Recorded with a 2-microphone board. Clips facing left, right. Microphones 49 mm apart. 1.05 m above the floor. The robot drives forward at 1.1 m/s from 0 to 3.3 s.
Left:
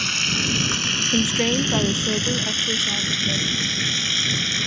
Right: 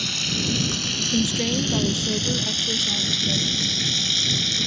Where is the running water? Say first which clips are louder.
Left 4 dB; 45° left (ahead or behind); by 4.7 s 35° left (ahead or behind).